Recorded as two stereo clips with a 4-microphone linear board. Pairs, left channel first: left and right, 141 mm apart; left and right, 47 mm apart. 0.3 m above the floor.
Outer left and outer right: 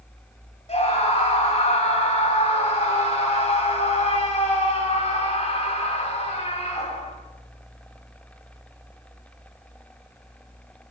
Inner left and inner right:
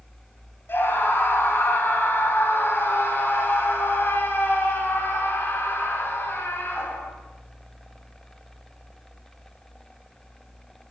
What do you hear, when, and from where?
0.7 s a scream: 50° left (ahead or behind), 2 m